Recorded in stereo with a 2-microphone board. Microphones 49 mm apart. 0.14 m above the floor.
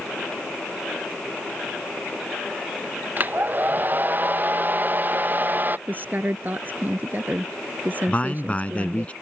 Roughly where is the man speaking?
Left.